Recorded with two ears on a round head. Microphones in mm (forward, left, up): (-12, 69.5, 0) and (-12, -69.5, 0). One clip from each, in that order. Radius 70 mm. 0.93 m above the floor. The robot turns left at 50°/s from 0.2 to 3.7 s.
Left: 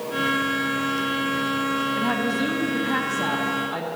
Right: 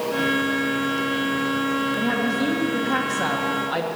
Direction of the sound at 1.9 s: 40° left.